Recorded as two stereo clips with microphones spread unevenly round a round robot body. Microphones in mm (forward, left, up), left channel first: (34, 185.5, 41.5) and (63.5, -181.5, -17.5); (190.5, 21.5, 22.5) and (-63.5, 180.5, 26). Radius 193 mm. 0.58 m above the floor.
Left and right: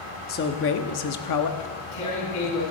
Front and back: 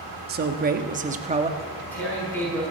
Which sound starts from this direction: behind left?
A man speaking, at 0.3 s.